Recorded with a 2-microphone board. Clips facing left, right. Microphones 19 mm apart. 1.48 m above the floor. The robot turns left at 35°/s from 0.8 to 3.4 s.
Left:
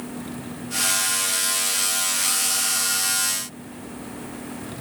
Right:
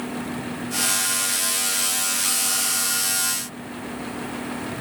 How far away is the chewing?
No chewing in this recording.